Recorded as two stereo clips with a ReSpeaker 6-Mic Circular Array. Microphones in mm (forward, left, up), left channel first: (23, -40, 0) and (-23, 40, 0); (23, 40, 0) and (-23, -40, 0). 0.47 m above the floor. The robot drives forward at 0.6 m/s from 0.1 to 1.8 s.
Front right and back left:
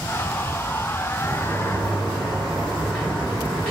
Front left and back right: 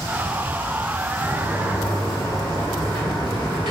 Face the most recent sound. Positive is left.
turn(degrees=-135)